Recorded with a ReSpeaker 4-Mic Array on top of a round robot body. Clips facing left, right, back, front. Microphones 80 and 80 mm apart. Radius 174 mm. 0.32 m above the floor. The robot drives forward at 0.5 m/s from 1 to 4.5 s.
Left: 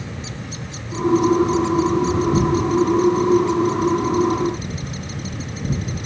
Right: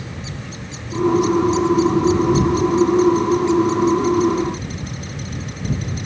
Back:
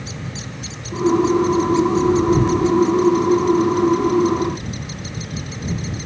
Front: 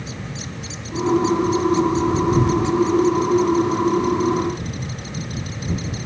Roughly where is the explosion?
No explosion in this recording.